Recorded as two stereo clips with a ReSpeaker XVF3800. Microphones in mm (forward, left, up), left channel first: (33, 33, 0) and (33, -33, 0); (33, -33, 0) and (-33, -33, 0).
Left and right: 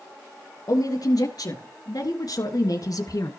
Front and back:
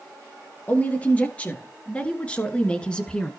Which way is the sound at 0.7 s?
70° left.